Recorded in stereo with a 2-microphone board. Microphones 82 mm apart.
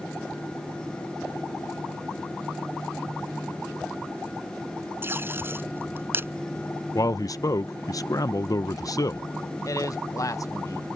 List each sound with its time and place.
5.0 s tape being pulled: 30° right (ahead or behind)
7.0 s a man speaking: 45° left (ahead or behind)
9.7 s a man speaking: 45° left (ahead or behind)